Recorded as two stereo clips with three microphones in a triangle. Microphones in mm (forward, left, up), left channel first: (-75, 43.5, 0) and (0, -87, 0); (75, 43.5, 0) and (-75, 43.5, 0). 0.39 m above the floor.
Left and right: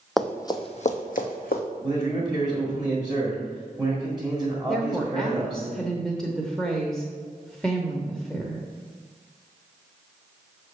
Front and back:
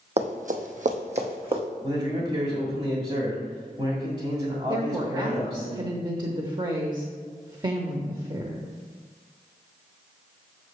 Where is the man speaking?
140° right, 1.5 m.